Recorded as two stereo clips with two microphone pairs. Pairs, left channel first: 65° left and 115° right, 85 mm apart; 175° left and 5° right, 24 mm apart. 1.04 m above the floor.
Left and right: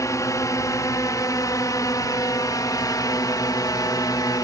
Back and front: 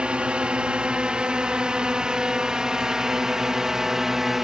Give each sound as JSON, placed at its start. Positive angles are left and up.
{"t": 0.0, "sound": "a drone", "azimuth_deg": 20}